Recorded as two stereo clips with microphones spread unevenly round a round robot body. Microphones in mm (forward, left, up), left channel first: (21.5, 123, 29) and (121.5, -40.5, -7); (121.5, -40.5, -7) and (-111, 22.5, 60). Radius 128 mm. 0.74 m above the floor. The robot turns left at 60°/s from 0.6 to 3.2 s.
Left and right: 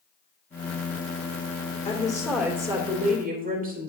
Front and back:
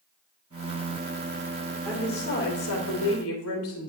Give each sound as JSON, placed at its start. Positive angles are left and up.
{"t": 1.9, "sound": "a woman speaking", "azimuth_deg": 60, "distance_m": 2.5}